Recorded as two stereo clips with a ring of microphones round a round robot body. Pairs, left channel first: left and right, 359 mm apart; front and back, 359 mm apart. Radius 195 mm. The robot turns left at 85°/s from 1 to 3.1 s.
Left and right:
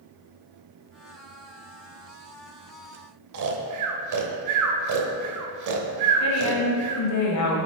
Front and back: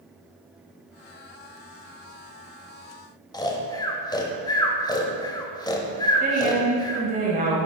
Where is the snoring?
75° right, 1.0 m.